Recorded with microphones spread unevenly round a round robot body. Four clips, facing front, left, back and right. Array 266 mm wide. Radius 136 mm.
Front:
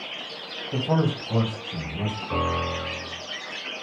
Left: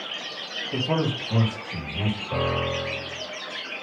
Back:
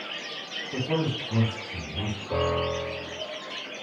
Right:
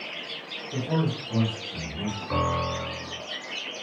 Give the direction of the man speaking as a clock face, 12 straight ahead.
11 o'clock.